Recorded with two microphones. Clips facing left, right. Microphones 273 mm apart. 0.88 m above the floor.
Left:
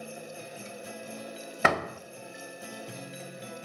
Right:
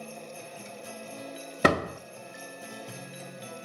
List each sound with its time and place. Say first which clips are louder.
1.6 s a door slam: right 5 dB; 40° right (ahead or behind), 0.6 m